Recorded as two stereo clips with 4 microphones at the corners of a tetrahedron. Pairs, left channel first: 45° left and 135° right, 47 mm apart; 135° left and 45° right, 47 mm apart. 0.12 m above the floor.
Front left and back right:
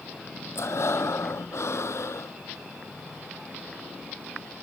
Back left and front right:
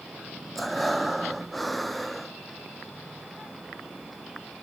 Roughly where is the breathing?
Ahead left.